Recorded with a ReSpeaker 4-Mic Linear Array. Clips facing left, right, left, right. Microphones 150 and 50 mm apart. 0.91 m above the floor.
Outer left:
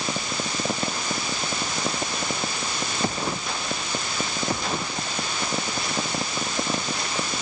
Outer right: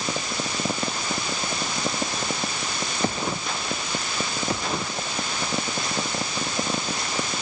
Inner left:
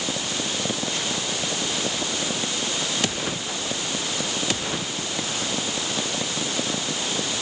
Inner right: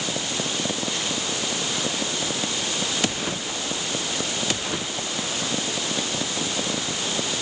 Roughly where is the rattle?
No rattle in this recording.